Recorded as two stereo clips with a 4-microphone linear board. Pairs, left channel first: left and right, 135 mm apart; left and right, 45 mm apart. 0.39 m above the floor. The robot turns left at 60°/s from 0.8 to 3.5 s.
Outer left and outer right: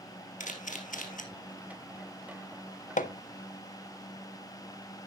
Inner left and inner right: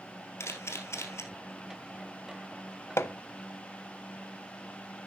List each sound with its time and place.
0.4 s a camera shutter: 75° left (ahead or behind), 2.0 m
3.0 s hammering: 75° left (ahead or behind), 0.6 m; by 3.1 s 80° left, 0.6 m